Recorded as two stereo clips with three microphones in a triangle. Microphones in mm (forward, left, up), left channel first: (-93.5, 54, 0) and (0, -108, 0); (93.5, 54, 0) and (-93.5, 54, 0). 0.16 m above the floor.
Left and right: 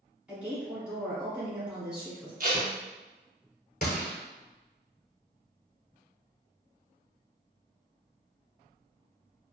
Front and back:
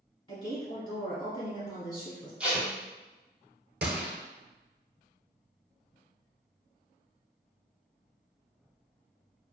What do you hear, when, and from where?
0.3 s a woman speaking: 20° left, 1.3 m
2.4 s tape being pulled: 95° right, 0.8 m
3.8 s a gunshot: 155° left, 0.6 m